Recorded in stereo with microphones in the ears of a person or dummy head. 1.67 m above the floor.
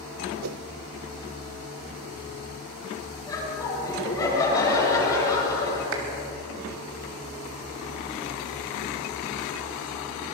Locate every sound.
0.4 s a whoosh: 85° right, 0.7 m
3.3 s laughter: 20° left (ahead or behind), 10 m
5.9 s a clap: 80° right, 3.5 m